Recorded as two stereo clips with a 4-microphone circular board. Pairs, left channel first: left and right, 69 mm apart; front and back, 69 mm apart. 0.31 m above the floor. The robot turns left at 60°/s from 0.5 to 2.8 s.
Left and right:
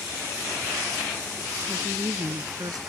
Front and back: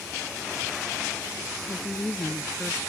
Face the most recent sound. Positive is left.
turn(degrees=-105)